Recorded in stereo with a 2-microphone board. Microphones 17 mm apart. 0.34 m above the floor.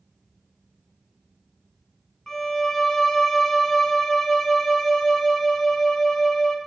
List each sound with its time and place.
2.3 s a violin: 25° left (ahead or behind), 0.7 m